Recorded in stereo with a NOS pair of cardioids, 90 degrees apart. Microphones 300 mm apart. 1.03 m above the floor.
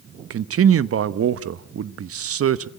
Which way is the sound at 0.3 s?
50° right.